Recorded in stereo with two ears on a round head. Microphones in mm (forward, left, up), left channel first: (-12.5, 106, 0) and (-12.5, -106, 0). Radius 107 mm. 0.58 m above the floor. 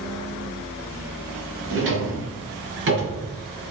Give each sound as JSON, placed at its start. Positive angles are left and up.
{"t": 1.7, "sound": "a drawer", "side_deg": -55, "distance_m": 3.5}